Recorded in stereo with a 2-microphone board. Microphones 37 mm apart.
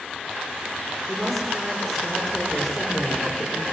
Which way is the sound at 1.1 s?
5° left (ahead or behind).